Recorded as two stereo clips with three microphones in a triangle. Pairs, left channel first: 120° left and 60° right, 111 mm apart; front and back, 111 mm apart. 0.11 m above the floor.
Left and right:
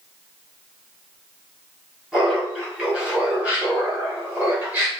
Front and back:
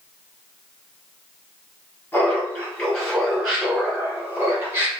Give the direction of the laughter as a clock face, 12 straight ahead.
12 o'clock.